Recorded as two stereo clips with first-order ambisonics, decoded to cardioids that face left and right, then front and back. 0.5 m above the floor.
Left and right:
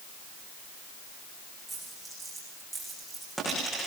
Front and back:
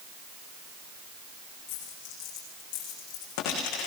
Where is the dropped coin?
10° right, 10 m.